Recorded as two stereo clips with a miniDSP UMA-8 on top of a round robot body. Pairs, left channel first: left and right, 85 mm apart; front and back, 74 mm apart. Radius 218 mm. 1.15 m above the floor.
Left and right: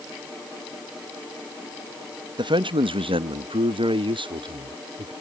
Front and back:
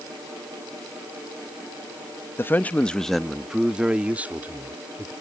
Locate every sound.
2.4 s a man speaking: 60° right; by 5.1 s 115° right